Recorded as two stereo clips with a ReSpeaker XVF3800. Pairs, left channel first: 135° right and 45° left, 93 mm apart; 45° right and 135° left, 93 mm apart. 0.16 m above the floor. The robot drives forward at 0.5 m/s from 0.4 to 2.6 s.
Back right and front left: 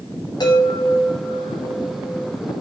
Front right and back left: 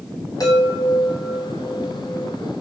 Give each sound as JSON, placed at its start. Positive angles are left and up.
{"t": 0.4, "sound": "a chime", "azimuth_deg": -95, "distance_m": 10.0}